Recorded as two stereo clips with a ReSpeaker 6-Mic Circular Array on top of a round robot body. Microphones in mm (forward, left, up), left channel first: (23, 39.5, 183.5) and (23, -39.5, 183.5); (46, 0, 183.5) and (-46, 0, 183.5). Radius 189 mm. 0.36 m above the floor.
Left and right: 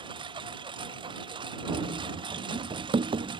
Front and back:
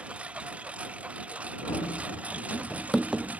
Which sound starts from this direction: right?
A lawn mower, at 0.0 s.